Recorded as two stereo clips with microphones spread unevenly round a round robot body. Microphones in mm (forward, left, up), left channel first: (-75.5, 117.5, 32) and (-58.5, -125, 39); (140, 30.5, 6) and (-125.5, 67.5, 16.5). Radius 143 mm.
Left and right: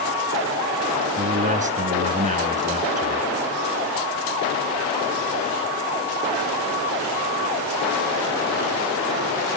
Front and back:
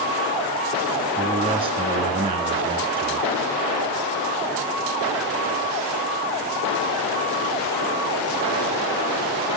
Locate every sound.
1.2 s a man speaking: 125° right, 1.2 m